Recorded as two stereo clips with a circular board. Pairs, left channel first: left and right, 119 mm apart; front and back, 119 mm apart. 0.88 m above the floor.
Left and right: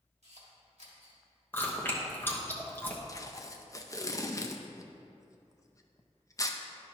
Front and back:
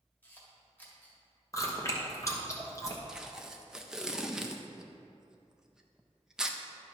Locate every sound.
0.2 s a camera shutter: 75° right, 1.9 m
1.5 s chewing: 35° left, 1.0 m
3.1 s tape being pulled: 100° left, 0.6 m